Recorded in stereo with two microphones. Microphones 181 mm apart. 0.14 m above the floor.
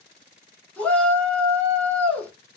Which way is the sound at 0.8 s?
10° left (ahead or behind).